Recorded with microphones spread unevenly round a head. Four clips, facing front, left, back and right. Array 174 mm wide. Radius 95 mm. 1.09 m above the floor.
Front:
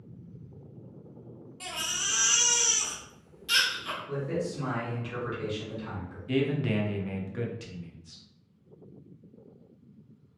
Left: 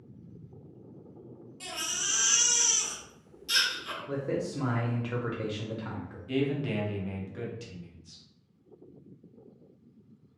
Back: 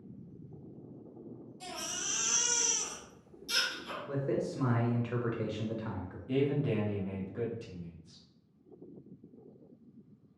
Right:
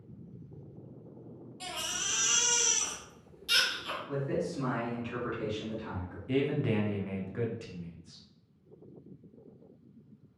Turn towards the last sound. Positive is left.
turn(degrees=-35)